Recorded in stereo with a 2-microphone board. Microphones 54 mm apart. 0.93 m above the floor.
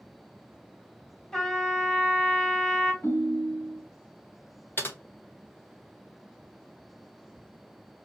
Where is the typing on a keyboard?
45° left (ahead or behind), 0.7 m.